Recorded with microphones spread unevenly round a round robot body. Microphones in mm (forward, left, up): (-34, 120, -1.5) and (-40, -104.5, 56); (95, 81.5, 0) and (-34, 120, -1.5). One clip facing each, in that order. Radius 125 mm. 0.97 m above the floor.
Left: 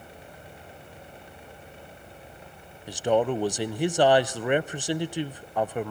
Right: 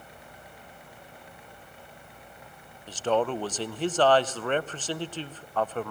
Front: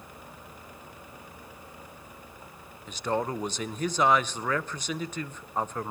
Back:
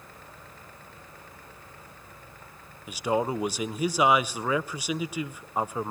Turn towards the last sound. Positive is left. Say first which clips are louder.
# left 3 dB, back 3 dB
turn(degrees=95)